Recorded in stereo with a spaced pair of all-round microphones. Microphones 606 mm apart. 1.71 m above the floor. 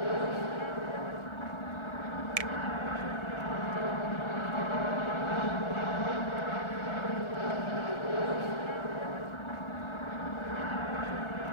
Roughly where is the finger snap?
Right.